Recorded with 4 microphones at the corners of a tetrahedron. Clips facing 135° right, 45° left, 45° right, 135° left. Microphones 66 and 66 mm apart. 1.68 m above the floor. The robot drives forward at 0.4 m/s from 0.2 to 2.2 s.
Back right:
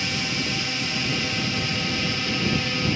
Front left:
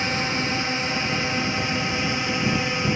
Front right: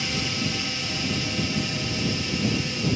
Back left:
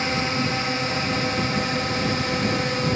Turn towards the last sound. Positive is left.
turn(degrees=110)